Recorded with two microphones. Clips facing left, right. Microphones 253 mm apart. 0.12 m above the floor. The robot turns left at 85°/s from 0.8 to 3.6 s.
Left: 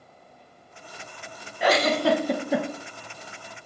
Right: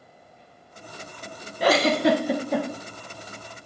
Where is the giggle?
40° right (ahead or behind), 0.5 m; by 2.7 s 15° left (ahead or behind), 0.5 m.